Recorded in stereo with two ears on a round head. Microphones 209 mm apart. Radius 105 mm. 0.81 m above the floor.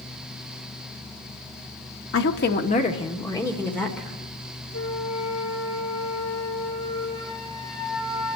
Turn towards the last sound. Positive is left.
turn(degrees=65)  # may be behind; listen again after turning